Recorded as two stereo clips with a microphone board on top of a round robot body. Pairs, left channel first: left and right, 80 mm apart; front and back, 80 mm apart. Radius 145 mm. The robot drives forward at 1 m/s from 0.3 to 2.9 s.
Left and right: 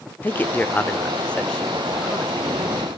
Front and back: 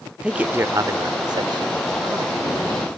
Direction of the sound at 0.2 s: 120° left.